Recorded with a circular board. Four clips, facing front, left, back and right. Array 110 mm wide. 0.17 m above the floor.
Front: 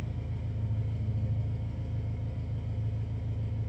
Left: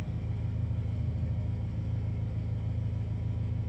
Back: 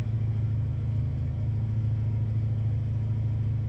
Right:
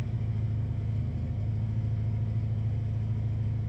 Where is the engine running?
150° right, 0.8 m.